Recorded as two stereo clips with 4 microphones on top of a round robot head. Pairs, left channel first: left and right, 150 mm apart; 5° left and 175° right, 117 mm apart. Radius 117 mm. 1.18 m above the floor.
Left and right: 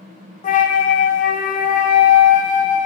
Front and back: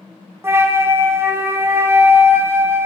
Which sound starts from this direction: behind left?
A flute, at 0.4 s.